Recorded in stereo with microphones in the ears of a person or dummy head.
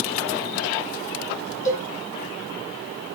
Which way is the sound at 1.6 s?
20° left (ahead or behind).